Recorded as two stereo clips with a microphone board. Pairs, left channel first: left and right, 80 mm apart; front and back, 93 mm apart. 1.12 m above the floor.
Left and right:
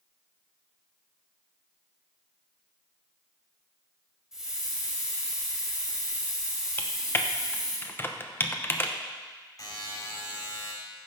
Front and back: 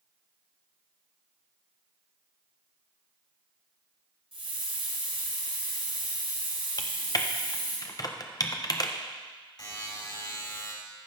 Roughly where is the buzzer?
Ahead left.